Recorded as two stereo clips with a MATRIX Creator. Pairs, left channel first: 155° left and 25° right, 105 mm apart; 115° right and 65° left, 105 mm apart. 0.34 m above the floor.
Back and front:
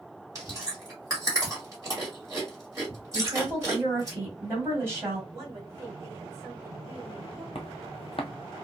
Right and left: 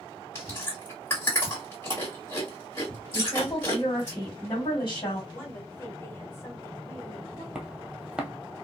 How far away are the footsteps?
About 0.6 m.